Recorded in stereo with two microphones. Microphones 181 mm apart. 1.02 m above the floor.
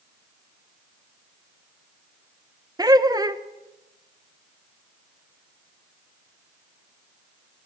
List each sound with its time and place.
2.8 s laughter: 20° right (ahead or behind), 0.9 m